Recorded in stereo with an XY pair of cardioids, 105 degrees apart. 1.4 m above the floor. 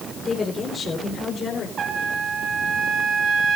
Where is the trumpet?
50° right, 2.0 m.